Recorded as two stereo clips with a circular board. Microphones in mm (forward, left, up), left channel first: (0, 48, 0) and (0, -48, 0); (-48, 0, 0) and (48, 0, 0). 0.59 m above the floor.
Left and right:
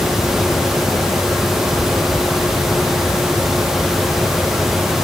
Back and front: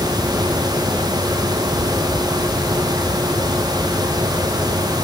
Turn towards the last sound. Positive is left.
No sound to turn to.